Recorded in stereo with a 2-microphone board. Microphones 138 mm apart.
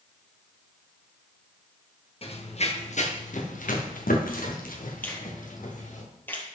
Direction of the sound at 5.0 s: 15° left (ahead or behind).